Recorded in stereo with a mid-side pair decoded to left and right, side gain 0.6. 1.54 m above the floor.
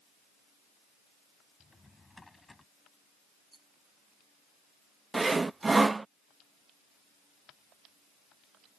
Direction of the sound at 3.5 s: 15° right.